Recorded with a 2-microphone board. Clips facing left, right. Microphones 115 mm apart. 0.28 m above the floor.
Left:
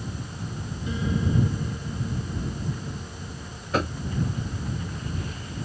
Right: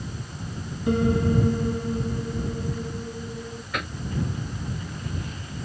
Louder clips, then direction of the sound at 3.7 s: Left 8 dB; 35° left (ahead or behind).